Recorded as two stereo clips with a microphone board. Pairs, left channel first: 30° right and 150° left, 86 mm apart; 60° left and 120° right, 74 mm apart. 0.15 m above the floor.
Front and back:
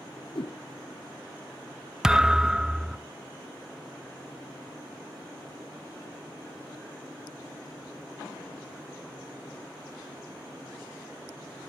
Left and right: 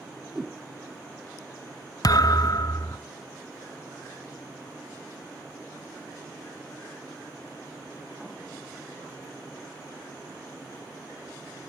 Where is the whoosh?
40° right, 0.5 m.